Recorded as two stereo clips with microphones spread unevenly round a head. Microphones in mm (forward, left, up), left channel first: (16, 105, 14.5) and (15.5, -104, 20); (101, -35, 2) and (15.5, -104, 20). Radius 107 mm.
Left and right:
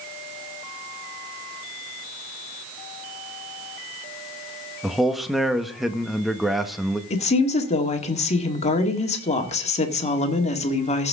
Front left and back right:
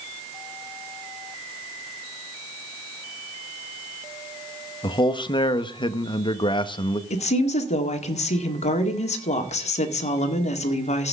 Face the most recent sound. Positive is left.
turn(degrees=30)